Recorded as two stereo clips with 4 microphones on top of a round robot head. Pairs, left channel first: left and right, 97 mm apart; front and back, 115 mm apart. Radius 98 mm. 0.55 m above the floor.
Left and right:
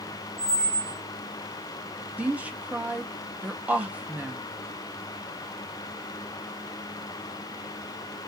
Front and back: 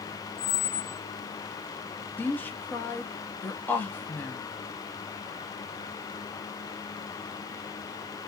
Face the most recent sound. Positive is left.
turn(degrees=-40)